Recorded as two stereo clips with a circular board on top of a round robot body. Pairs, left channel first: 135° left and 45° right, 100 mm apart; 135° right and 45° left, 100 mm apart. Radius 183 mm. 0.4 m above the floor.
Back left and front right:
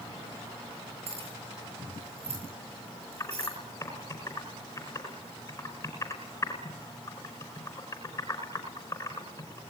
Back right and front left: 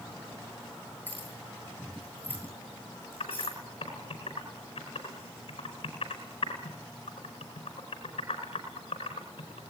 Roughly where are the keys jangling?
Ahead right.